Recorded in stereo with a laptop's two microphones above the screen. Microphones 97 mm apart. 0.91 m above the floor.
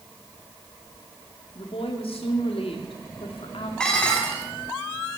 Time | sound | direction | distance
1.6 | a woman speaking | 75° left (ahead or behind) | 2 m
3.8 | dishes clattering | 10° left (ahead or behind) | 1.4 m